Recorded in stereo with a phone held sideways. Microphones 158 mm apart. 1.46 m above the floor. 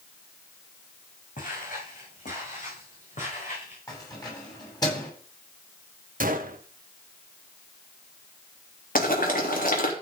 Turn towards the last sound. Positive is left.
turn(degrees=60)  # may be behind; listen again after turning